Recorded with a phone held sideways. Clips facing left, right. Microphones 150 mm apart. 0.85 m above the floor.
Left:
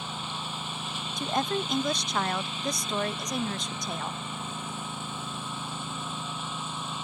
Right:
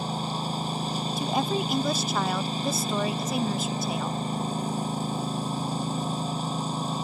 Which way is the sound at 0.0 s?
35° right (ahead or behind).